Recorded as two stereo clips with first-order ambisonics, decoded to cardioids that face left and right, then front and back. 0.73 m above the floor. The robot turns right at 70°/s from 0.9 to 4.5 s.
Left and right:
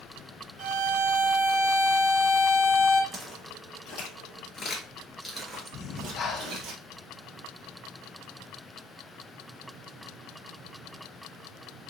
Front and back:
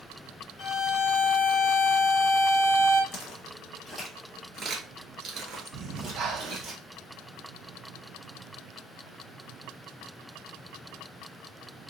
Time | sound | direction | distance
0.6 | a violin | 50° right | 1.0 m
3.1 | footsteps | straight ahead | 1.5 m
5.7 | breathing | 140° left | 0.5 m